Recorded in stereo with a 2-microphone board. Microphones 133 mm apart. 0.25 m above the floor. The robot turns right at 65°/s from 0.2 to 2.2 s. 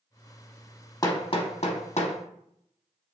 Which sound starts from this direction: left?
Hammering, at 1.0 s.